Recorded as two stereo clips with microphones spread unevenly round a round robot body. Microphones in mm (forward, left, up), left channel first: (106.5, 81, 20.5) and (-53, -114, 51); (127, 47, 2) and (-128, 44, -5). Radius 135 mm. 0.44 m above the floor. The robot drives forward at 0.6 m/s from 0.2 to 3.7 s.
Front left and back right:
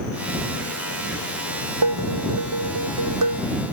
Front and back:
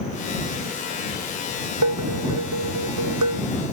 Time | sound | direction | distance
1.8 | dishes clattering | 145° right | ?